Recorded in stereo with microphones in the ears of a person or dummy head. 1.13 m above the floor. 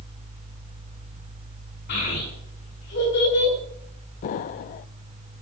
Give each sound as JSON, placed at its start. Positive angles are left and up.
{"t": 1.9, "sound": "a child speaking", "side_deg": 55, "distance_m": 8.5}
{"t": 4.2, "sound": "an explosion", "side_deg": 45, "distance_m": 0.5}